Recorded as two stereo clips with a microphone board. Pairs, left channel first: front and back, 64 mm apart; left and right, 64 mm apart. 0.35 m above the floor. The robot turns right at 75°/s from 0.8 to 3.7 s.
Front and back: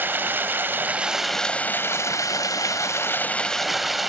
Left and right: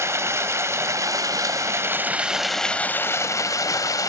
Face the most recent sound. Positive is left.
turn(degrees=90)